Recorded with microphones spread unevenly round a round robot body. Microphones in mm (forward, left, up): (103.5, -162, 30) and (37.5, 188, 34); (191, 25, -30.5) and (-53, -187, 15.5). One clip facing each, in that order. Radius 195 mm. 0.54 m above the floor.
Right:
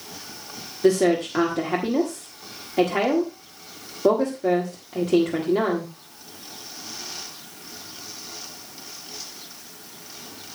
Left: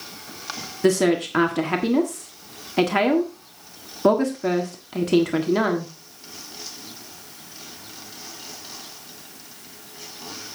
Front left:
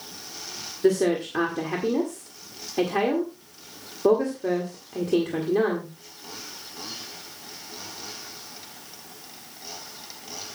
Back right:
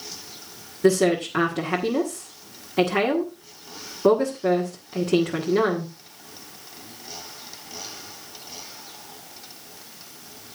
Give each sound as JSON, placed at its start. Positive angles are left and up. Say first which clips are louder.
{"t": 0.8, "sound": "a woman speaking", "louder": "even, back right 2 dB", "azimuth_deg": 145, "distance_m": 1.5}